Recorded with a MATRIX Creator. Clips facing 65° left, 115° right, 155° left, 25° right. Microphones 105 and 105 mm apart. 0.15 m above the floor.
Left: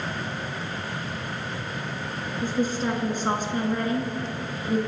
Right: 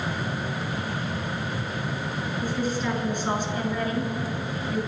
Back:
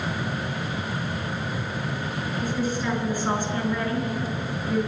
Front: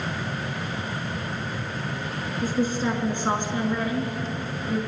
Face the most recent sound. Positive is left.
turn(degrees=65)